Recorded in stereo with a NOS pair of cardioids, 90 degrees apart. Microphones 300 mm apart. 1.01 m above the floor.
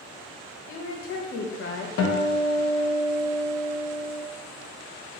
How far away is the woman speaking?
About 0.6 m.